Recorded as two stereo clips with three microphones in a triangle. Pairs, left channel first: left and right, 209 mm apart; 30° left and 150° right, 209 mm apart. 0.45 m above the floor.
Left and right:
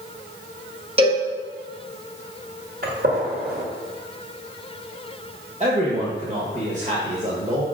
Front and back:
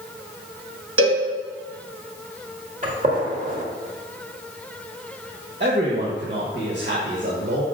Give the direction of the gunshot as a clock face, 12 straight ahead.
4 o'clock.